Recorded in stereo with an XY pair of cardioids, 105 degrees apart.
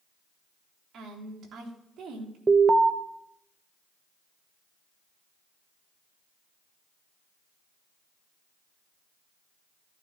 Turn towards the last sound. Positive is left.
turn(degrees=-25)